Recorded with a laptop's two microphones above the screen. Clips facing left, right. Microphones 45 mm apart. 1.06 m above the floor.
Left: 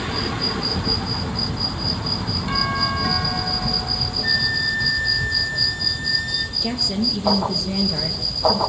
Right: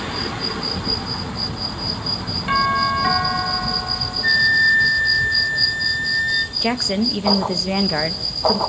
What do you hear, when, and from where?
2.5 s a doorbell: 35° right (ahead or behind), 3 m
4.2 s a flute: 30° right (ahead or behind), 1.8 m
6.6 s a woman speaking: 55° right (ahead or behind), 1.1 m